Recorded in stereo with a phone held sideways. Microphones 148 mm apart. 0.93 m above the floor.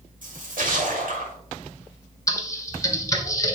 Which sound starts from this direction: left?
Typing on a keyboard, at 2.3 s.